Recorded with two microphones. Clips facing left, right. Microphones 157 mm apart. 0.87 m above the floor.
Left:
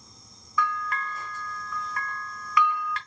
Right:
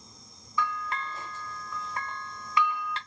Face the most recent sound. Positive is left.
turn(degrees=-25)  # may be behind; listen again after turning